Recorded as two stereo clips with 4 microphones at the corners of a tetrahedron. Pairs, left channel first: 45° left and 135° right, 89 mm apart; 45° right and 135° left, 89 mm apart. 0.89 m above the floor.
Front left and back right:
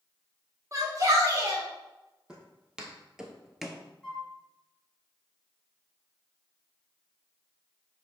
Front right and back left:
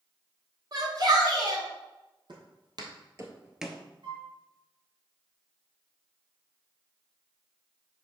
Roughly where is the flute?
Behind left.